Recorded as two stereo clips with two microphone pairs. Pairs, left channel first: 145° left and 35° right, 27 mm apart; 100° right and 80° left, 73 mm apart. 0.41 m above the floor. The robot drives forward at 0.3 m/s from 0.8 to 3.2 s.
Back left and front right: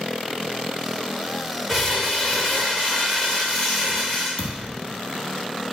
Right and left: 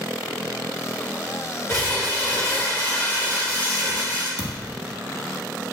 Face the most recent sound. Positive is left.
turn(degrees=110)